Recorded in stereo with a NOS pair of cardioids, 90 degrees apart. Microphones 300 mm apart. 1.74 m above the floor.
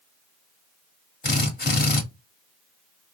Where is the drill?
35° left, 1.4 m.